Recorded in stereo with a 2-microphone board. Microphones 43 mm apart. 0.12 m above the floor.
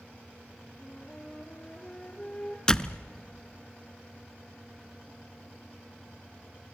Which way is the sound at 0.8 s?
25° left (ahead or behind).